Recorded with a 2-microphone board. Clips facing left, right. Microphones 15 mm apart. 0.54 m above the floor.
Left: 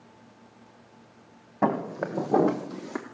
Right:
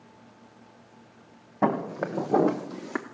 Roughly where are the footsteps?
Centre.